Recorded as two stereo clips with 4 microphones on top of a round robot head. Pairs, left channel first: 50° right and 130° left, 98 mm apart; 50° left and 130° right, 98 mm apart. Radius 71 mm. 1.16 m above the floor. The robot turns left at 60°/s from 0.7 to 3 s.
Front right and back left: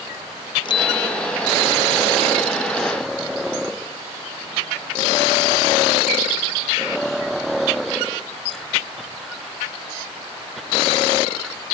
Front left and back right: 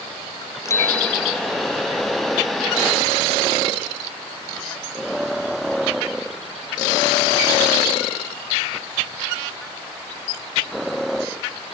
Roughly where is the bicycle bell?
Ahead.